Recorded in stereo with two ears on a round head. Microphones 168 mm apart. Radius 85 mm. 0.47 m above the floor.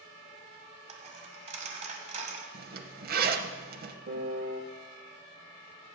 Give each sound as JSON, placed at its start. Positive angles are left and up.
{"t": 0.9, "sound": "a dropped coin", "side_deg": -40, "distance_m": 1.4}
{"t": 2.5, "sound": "a zipper", "side_deg": -55, "distance_m": 0.8}
{"t": 4.1, "sound": "a piano", "side_deg": -55, "distance_m": 0.8}